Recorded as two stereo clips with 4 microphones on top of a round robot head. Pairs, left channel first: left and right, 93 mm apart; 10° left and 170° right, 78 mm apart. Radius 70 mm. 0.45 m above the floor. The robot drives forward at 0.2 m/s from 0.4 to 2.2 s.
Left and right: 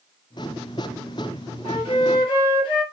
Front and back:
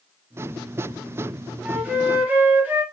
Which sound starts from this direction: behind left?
A flute, at 1.6 s.